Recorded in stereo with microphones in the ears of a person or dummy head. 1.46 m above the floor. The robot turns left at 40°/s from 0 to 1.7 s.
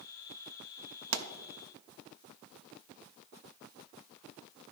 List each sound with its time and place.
1.1 s a pop: 70° right (ahead or behind), 0.6 m